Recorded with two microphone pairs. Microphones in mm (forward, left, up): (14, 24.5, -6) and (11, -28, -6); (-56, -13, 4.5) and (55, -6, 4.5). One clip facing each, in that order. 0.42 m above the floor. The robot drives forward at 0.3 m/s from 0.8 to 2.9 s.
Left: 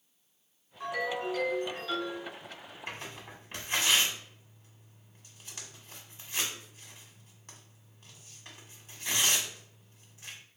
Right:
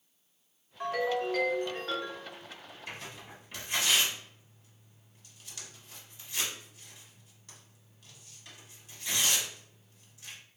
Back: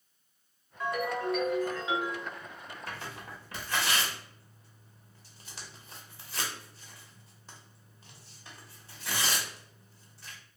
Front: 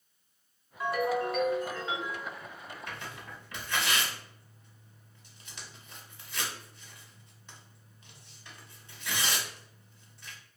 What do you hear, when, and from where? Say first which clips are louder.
0.8 s a ringtone: right 3 dB, front 2 dB; 75° right, 1.0 m; by 2.3 s 110° right, 1.0 m
2.9 s tearing paper: left 2 dB, back 3 dB; 135° left, 0.7 m